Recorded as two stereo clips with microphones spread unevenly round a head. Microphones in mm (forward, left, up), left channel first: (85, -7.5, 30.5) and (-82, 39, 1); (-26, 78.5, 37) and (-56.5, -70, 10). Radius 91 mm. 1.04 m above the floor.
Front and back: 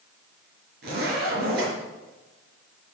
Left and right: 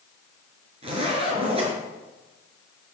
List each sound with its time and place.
0.8 s a zipper: 155° right, 5 m